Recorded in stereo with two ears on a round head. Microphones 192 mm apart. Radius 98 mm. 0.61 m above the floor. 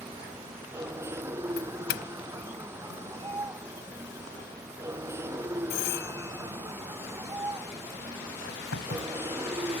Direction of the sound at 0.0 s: 10° right (ahead or behind).